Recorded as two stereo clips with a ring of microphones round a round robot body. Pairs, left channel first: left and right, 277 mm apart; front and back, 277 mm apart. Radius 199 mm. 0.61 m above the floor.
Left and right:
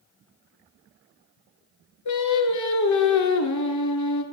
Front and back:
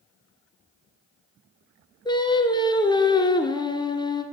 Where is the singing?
75° left, 1.6 m.